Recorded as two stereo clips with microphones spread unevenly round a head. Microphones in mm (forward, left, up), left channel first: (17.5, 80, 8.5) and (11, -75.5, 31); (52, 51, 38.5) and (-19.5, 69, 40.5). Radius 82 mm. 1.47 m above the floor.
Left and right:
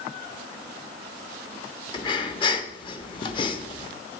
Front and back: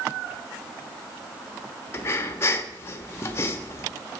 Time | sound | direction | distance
1.9 | breathing | 30° left | 1.2 m